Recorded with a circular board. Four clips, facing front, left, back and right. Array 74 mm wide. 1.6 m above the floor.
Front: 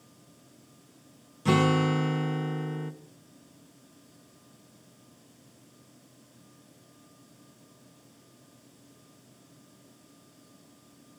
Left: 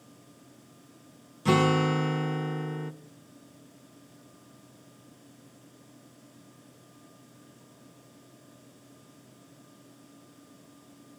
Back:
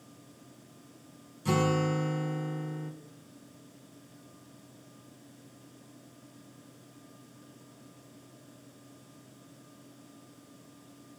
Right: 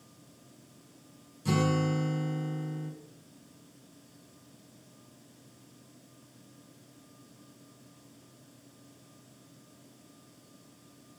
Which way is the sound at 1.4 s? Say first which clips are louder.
Left 5 dB, front 4 dB; 55° left.